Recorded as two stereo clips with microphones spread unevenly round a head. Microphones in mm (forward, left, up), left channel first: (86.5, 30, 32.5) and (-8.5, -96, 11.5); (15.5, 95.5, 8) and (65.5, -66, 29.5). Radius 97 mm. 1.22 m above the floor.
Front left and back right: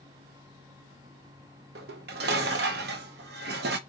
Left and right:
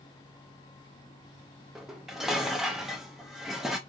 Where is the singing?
I don't hear singing.